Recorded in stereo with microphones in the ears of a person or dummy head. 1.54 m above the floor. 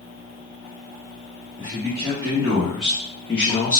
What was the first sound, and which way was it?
A man speaking, 30° right (ahead or behind).